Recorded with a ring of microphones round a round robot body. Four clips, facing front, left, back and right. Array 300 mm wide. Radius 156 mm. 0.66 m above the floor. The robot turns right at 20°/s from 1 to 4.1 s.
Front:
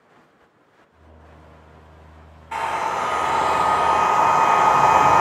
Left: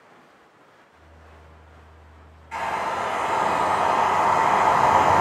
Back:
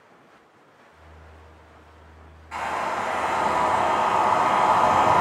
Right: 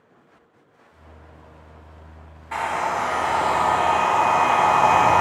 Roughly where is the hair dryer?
Ahead right.